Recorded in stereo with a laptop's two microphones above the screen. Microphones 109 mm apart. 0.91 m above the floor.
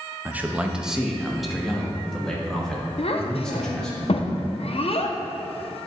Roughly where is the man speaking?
Centre.